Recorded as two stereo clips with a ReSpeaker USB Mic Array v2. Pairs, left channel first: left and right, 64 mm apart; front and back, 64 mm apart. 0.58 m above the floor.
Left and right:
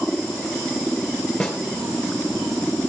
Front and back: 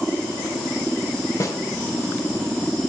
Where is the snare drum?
5° left, 3 m.